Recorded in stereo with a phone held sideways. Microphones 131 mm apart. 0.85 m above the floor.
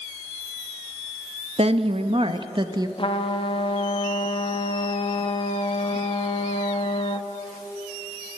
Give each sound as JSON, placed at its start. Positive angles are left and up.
{"t": 1.6, "sound": "a woman speaking", "side_deg": -55, "distance_m": 1.4}
{"t": 3.0, "sound": "a trumpet", "side_deg": 45, "distance_m": 1.4}